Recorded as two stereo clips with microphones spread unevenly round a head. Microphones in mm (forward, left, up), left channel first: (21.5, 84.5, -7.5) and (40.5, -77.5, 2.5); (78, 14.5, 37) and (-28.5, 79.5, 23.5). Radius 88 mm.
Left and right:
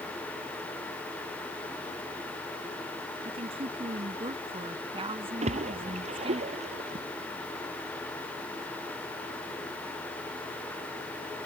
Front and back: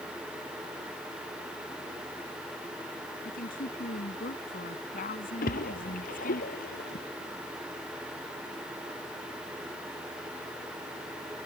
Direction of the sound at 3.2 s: 30° right.